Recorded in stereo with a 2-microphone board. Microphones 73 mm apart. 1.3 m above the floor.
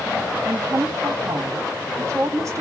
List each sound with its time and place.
0.5 s a woman speaking: 45° right (ahead or behind), 3 m